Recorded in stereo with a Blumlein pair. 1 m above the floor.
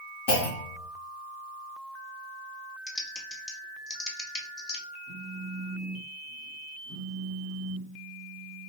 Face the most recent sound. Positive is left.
turn(degrees=10)